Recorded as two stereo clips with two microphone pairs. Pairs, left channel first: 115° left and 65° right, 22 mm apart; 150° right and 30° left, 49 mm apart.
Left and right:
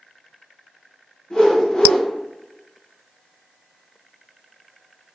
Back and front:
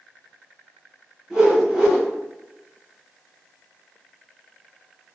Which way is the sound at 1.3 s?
105° left.